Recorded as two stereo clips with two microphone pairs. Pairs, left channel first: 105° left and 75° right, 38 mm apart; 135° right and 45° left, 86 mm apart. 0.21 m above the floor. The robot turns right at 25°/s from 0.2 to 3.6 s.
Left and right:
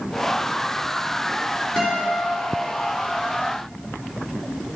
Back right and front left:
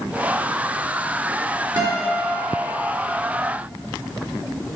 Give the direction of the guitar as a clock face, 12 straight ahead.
11 o'clock.